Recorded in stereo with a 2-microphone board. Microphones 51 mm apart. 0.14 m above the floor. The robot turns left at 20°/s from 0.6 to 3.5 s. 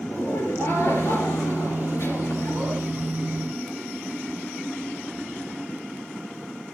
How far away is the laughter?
About 3 m.